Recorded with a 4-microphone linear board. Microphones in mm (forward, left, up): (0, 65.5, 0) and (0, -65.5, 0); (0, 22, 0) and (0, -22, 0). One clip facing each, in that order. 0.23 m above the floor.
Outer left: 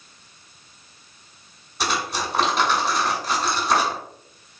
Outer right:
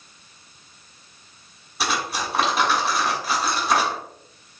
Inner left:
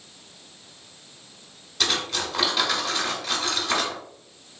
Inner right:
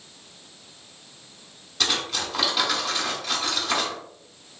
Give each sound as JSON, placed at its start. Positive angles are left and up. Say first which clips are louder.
{"t": 1.8, "sound": "cutlery clinking", "louder": "even, even", "side_deg": 0, "distance_m": 1.1}